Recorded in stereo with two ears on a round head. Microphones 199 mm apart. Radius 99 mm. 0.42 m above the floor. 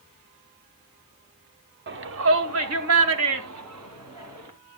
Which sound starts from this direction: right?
A shout, at 1.9 s.